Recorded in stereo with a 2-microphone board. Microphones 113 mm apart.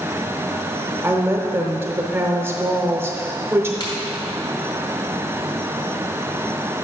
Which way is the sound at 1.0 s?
20° right (ahead or behind).